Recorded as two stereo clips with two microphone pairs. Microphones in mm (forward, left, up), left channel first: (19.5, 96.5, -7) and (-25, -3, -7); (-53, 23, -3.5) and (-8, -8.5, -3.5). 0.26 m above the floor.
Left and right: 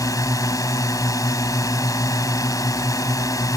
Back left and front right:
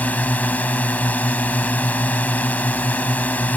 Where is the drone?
105° left.